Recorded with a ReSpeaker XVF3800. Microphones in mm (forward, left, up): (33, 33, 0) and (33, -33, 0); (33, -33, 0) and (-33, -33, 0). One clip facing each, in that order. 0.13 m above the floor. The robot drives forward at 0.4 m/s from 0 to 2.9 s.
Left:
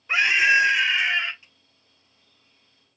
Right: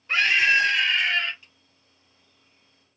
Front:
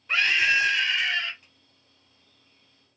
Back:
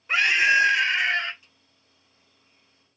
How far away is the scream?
About 1.1 m.